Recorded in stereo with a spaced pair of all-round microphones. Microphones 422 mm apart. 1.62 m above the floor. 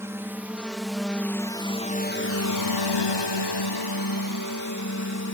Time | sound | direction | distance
0.0 | a drone | 5° right (ahead or behind) | ?